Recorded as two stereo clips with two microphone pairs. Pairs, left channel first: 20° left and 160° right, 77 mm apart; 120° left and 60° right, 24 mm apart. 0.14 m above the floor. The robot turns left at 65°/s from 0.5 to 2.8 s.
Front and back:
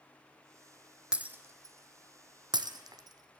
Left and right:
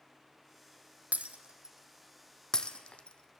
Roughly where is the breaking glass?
Right.